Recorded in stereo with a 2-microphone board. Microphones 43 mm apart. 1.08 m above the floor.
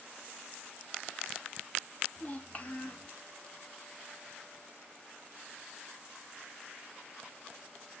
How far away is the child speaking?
About 1.0 m.